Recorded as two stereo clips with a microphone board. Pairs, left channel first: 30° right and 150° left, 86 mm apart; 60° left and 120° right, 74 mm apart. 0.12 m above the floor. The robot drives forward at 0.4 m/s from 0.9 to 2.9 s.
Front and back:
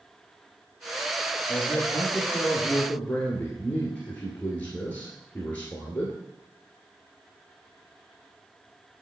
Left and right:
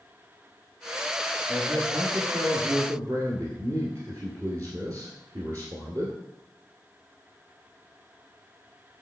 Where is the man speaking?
75° right, 2.0 m; by 6.2 s 95° right, 1.9 m.